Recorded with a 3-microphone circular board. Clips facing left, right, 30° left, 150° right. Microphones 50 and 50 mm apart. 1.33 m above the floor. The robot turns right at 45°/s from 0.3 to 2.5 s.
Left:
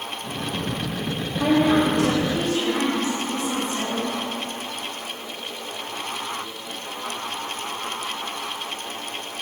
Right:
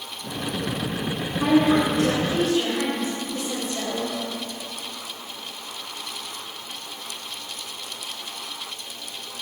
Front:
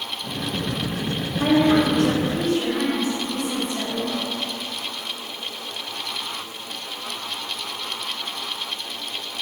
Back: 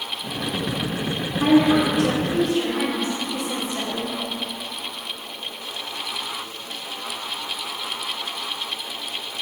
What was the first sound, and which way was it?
A woman speaking, 95° left.